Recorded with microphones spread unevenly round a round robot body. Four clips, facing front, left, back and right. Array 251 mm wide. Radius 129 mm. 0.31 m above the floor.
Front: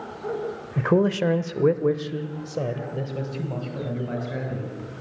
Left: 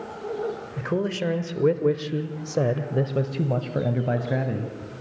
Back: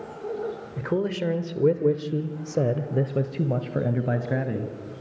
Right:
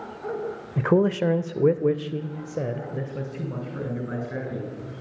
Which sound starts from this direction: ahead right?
A man speaking, at 0.8 s.